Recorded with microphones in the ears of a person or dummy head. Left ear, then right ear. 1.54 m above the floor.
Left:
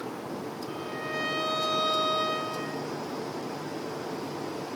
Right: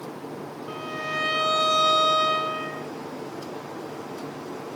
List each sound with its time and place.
0.7 s a violin: 35° right (ahead or behind)